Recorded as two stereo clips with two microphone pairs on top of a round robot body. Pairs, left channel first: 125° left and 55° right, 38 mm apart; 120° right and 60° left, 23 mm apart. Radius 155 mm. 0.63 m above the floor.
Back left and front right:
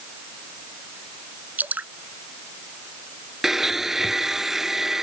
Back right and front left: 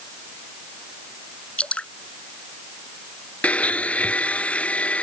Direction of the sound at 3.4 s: 135° right.